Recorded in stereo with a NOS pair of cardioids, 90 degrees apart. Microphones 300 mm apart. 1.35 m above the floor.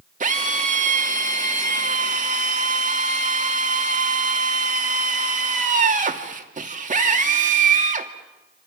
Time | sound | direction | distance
0.2 | a drill | 25° right | 2.5 m